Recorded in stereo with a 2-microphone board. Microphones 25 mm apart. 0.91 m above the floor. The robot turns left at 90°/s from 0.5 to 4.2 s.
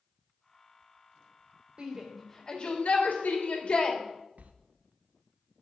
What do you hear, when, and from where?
1.8 s a shout: 35° right (ahead or behind), 2.5 m; by 4.0 s 15° left (ahead or behind), 2.5 m
4.4 s a sliding door: 70° right (ahead or behind), 0.9 m